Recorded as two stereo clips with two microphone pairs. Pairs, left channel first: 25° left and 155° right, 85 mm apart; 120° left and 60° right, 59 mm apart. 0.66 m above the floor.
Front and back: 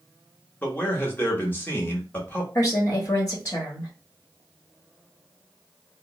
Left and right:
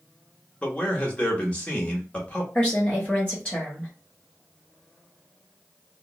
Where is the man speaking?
70° left, 0.9 m.